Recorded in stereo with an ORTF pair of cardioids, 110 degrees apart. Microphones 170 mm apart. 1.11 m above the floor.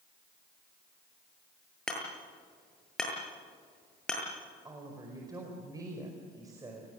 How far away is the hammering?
About 7.5 m.